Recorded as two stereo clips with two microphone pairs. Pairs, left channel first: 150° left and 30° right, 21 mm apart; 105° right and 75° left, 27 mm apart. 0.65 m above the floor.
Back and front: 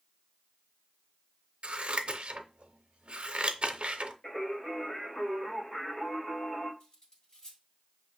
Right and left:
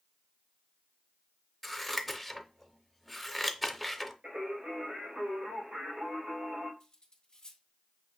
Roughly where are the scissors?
Ahead.